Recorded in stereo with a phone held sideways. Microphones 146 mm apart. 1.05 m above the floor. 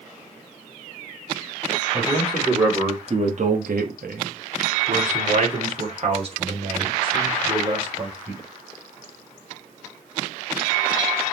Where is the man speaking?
20° right (ahead or behind), 2.5 m; by 8.4 s 30° right (ahead or behind), 5.5 m.